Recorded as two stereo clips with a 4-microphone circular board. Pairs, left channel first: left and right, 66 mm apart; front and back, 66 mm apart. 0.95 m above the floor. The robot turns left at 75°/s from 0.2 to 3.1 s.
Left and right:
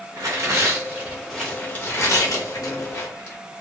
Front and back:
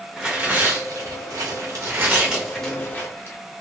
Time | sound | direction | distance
0.2 | tearing paper | 95° right | 1.1 m